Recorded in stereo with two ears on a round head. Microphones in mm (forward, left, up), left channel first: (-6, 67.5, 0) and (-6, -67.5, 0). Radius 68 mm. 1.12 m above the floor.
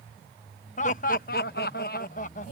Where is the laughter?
55° left (ahead or behind); by 2.5 s 50° left (ahead or behind).